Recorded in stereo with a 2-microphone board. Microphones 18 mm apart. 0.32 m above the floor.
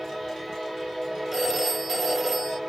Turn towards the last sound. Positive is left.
turn(degrees=0)  # may be behind; listen again after turning